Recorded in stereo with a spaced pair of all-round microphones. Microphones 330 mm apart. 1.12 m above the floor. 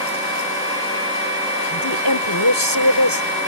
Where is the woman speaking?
90° left.